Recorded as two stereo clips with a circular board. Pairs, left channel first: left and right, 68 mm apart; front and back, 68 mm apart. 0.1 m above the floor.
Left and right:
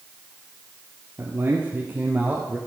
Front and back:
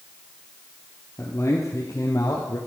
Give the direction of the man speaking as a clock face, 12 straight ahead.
1 o'clock.